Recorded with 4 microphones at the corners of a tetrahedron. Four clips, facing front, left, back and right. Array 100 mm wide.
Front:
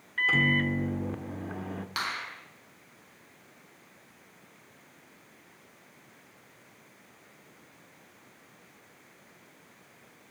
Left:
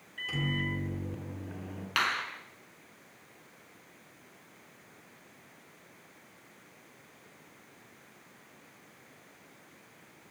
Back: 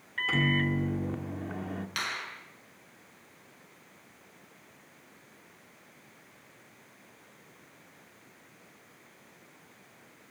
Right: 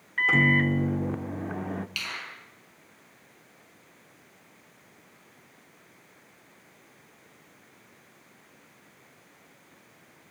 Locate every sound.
0.2 s a microwave: 85° right, 1.5 m
2.0 s a finger snap: 75° left, 5 m